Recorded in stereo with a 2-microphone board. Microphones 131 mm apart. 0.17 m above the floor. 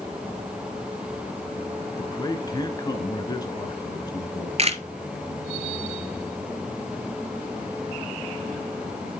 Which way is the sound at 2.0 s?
30° left (ahead or behind).